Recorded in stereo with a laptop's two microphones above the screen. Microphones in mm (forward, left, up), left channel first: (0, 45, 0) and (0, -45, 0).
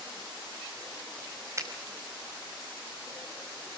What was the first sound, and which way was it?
A finger snap, 35° right (ahead or behind).